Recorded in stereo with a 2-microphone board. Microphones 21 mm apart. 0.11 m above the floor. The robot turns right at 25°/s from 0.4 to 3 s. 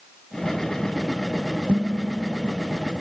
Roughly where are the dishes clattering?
Right.